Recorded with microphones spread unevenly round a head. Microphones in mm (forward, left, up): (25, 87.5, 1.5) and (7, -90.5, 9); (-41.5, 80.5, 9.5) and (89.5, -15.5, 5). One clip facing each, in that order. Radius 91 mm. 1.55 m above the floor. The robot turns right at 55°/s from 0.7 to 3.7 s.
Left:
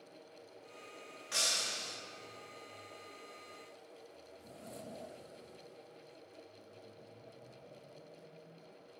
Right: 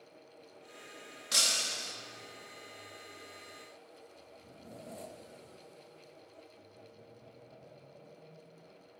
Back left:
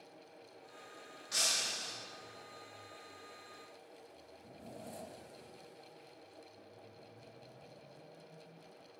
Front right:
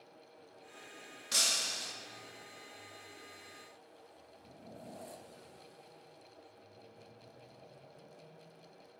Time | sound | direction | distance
1.3 | breaking glass | 65° right | 1.6 m